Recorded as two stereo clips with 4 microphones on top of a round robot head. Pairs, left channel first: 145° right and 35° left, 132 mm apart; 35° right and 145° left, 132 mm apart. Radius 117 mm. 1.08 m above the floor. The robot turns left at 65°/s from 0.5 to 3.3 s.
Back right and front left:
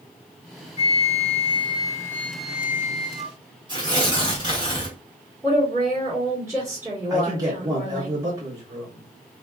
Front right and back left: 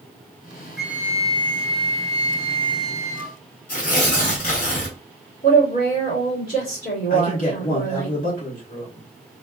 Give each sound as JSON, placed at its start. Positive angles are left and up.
{"t": 0.8, "sound": "a flute", "azimuth_deg": -130, "distance_m": 0.6}
{"t": 3.7, "sound": "tearing paper", "azimuth_deg": -20, "distance_m": 0.9}
{"t": 5.4, "sound": "a woman speaking", "azimuth_deg": -35, "distance_m": 2.0}
{"t": 7.1, "sound": "a man speaking", "azimuth_deg": -25, "distance_m": 1.7}